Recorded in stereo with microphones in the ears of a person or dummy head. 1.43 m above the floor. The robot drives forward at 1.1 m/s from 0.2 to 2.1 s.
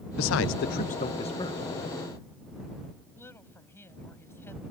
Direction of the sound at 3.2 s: 15° left (ahead or behind).